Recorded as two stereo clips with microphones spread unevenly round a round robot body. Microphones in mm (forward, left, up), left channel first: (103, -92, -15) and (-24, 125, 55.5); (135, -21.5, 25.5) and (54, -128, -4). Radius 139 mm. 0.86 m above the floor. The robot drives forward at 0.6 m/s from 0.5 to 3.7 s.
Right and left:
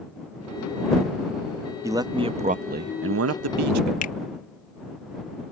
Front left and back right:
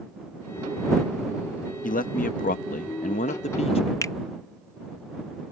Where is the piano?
No piano in this recording.